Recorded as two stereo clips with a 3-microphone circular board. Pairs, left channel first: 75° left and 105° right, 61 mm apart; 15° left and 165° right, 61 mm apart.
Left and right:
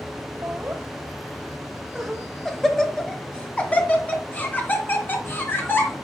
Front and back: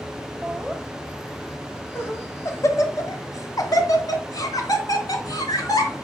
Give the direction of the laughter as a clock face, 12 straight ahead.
2 o'clock.